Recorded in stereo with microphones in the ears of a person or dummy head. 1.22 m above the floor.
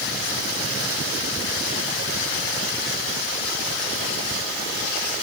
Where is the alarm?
I don't hear an alarm.